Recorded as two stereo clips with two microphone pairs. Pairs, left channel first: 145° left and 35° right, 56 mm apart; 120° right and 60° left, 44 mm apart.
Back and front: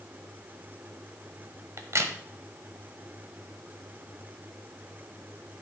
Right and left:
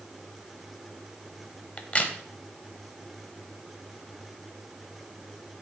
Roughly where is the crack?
Ahead right.